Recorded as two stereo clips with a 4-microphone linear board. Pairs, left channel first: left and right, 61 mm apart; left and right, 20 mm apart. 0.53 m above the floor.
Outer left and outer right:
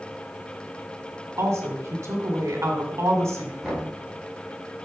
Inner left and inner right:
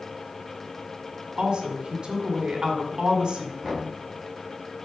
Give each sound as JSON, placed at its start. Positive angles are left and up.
{"t": 1.4, "sound": "a woman speaking", "side_deg": -50, "distance_m": 2.0}
{"t": 3.6, "sound": "knocking", "side_deg": -5, "distance_m": 4.5}